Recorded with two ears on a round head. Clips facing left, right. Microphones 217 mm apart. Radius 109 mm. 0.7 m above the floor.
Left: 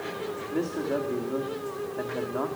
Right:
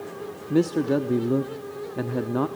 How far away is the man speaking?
About 0.9 m.